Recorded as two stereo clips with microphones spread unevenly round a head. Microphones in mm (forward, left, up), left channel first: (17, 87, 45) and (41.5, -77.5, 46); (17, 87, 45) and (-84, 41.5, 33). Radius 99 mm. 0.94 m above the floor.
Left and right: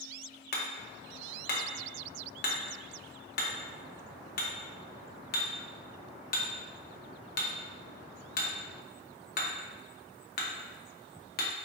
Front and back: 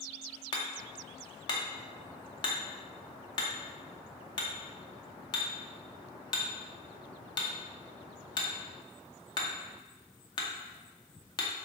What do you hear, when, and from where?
0.5 s hammering: 70° left, 0.8 m